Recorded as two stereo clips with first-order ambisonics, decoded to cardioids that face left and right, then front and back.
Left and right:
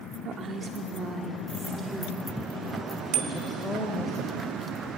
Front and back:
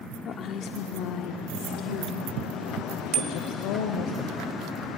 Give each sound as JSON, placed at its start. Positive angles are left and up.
{"t": 0.2, "sound": "a woman speaking", "azimuth_deg": -45, "distance_m": 1.1}
{"t": 3.1, "sound": "a bicycle bell", "azimuth_deg": -130, "distance_m": 2.0}